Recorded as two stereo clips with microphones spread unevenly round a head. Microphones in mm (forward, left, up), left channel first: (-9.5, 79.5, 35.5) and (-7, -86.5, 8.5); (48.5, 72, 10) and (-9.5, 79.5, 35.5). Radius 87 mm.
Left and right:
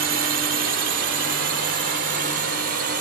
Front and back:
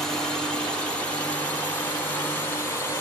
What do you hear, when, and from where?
0.0 s a drone: 80° right; by 3.0 s 55° right